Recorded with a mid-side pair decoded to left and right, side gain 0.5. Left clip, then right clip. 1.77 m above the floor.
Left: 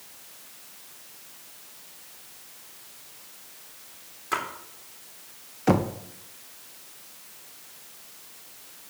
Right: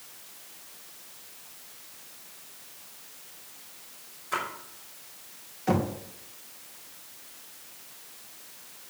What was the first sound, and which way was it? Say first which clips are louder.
A splash: left 2 dB; 70° left.